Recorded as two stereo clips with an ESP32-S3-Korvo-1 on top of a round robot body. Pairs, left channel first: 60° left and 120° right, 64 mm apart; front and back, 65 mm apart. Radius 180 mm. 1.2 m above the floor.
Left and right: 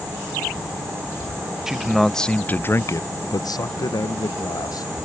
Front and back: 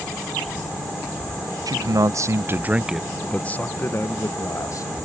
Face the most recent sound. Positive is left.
turn(degrees=35)